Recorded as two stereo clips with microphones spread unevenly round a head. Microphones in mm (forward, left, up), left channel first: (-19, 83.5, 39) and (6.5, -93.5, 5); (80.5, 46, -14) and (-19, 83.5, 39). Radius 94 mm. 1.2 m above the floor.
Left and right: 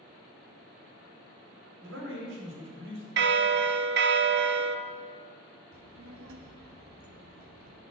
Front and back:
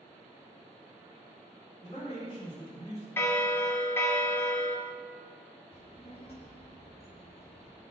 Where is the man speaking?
90° right, 4.5 m.